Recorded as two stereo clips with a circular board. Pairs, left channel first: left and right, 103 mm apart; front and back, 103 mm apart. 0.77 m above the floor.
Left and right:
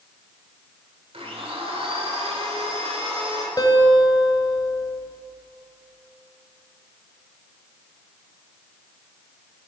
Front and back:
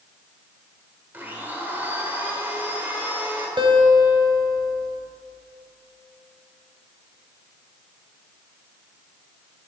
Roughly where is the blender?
Right.